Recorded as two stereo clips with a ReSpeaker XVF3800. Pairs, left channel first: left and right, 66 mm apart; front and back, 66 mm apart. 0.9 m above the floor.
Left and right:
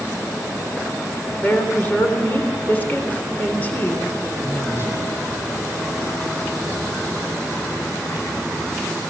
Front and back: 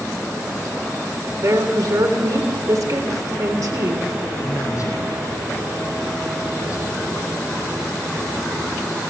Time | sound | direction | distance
1.4 | a woman speaking | 155° left | 3.5 m
4.3 | a man speaking | 40° left | 8.5 m